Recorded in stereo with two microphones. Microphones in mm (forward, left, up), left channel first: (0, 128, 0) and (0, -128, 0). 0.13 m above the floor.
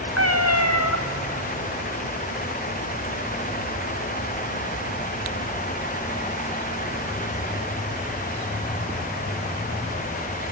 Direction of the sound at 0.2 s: 75° left (ahead or behind).